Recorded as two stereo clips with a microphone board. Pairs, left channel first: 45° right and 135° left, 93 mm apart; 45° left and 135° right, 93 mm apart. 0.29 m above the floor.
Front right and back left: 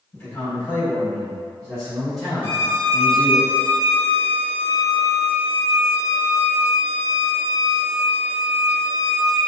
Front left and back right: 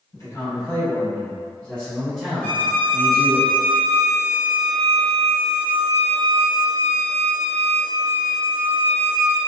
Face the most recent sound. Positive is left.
turn(degrees=105)